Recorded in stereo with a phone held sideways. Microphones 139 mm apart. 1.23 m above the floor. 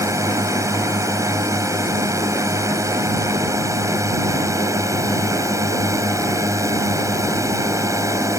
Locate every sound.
0.0 s a drone: 20° right (ahead or behind)